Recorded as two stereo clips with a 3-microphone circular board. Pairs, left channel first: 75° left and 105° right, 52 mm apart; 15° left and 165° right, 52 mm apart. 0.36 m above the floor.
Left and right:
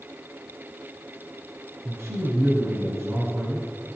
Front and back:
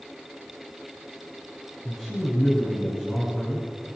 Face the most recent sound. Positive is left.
turn(degrees=-70)